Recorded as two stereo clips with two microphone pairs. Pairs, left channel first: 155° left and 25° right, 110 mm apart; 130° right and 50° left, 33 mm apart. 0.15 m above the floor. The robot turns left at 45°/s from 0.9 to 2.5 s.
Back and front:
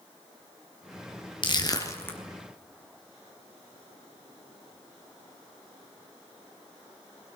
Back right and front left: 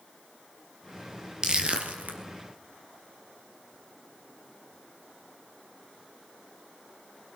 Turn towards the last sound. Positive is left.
turn(degrees=65)